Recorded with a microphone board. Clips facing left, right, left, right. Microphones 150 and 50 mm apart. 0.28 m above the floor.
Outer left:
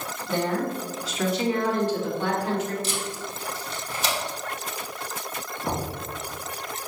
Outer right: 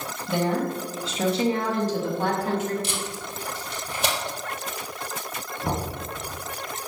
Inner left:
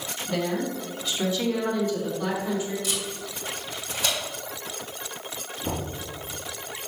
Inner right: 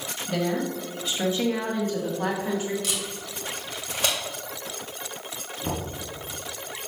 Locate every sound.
0.3 s a woman speaking: 10° right (ahead or behind), 1.7 m; by 2.7 s 50° right (ahead or behind), 2.5 m
2.8 s tape being pulled: 65° right (ahead or behind), 2.5 m
5.6 s knocking: 30° right (ahead or behind), 2.0 m